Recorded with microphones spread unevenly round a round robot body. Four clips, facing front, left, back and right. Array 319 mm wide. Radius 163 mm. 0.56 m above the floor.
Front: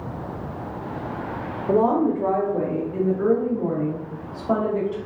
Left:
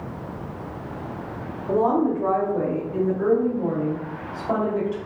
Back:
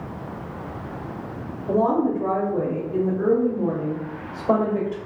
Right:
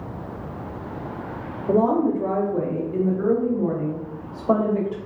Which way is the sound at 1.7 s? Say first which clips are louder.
Right 1 dB, front 1 dB; 95° right.